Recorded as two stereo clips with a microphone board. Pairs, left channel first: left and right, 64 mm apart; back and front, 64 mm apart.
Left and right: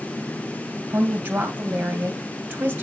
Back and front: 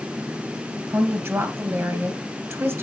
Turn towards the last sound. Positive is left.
turn(degrees=-35)